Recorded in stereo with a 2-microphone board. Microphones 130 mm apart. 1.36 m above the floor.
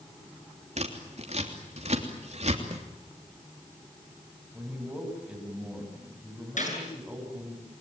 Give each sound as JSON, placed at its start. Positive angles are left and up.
{"t": 0.8, "sound": "scissors", "side_deg": -60, "distance_m": 3.0}
{"t": 2.7, "sound": "a snare drum", "side_deg": -55, "distance_m": 2.0}
{"t": 4.5, "sound": "a man speaking", "side_deg": -10, "distance_m": 9.0}
{"t": 6.6, "sound": "a gunshot", "side_deg": 70, "distance_m": 7.5}